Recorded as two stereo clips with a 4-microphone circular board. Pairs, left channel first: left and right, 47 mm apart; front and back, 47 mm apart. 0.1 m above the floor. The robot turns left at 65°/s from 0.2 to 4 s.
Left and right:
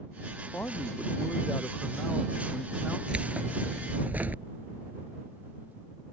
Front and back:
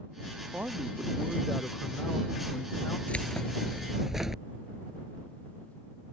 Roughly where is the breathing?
I don't hear breathing.